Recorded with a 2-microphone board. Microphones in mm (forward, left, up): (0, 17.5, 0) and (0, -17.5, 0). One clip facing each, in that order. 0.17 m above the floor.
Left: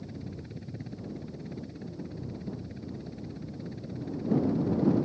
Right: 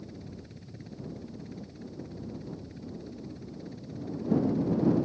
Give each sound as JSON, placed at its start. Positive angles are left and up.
{"t": 0.0, "sound": "a helicopter", "side_deg": 15}